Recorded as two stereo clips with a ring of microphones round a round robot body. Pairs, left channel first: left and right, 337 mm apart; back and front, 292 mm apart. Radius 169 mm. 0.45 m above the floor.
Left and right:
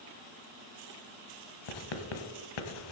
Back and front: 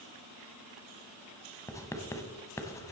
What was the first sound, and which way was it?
Writing, 100° left.